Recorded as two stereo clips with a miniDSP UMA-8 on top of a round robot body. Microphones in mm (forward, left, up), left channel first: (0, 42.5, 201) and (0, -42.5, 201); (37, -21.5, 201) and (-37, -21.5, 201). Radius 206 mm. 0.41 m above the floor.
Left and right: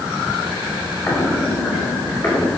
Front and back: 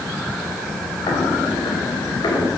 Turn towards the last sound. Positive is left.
turn(degrees=30)